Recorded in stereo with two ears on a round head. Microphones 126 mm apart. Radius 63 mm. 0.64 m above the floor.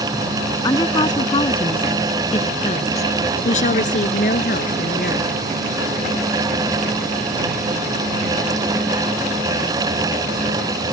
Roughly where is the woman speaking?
Left.